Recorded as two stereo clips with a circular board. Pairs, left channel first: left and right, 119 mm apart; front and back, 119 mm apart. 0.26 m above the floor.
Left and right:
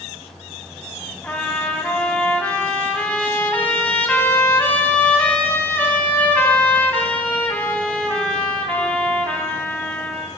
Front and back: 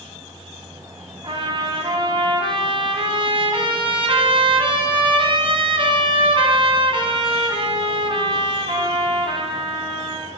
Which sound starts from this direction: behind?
A trumpet, at 1.2 s.